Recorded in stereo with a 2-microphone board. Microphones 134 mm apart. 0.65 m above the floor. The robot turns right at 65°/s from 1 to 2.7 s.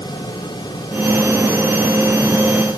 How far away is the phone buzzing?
No phone buzzing in this recording.